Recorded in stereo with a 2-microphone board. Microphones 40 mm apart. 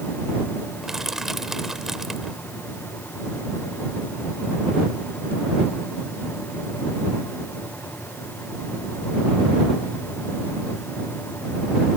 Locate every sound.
0.8 s crushing: 10° right (ahead or behind)